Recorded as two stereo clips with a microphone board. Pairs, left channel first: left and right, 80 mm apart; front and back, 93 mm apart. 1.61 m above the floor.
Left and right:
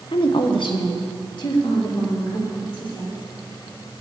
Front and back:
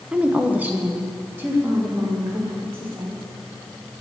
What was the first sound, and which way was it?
A woman speaking, 105° left.